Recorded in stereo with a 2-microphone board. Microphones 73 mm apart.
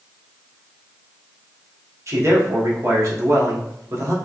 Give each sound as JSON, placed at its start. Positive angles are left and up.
{"t": 2.1, "sound": "a man speaking", "side_deg": -40, "distance_m": 0.9}